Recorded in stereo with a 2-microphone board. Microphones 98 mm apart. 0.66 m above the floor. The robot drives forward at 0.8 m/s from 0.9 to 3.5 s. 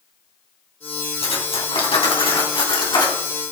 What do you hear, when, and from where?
1.2 s cutlery clinking: 75° left (ahead or behind), 3 m; by 3.2 s 50° left (ahead or behind), 4 m